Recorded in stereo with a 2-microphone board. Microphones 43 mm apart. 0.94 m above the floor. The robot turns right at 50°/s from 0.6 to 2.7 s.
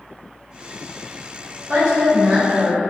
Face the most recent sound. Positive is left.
turn(degrees=-60)